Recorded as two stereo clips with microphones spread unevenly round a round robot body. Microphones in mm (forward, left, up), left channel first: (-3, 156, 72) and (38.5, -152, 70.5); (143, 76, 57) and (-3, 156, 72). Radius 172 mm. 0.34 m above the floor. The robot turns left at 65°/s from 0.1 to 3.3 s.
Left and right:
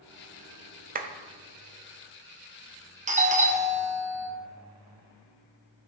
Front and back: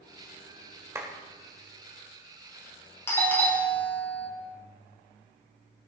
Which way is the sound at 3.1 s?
65° right.